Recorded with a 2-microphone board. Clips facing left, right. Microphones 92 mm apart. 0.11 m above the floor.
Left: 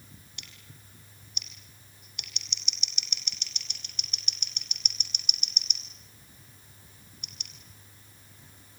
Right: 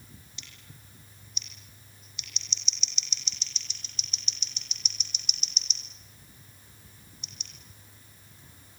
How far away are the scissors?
About 3 m.